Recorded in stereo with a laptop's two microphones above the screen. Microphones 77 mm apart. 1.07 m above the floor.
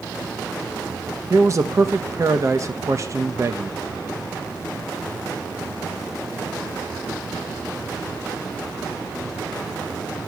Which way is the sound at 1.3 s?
40° right (ahead or behind).